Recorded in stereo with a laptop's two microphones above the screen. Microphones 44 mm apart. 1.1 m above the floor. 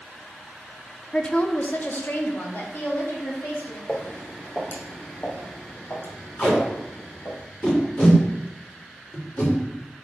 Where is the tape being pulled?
35° left (ahead or behind), 3 m.